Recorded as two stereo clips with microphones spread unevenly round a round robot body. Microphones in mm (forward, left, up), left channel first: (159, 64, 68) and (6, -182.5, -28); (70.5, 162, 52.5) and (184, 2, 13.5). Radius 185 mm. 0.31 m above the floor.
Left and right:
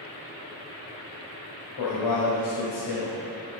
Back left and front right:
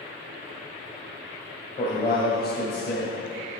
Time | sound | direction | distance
1.8 | a man speaking | 100° left | 1.8 m